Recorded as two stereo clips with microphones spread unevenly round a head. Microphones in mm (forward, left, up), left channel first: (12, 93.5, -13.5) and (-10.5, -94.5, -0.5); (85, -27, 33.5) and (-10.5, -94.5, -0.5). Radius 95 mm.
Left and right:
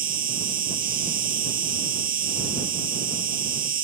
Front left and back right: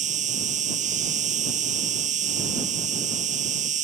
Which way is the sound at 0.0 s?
145° right.